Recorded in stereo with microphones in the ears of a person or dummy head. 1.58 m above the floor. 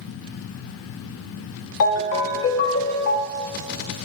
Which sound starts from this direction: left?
A ringtone, at 1.8 s.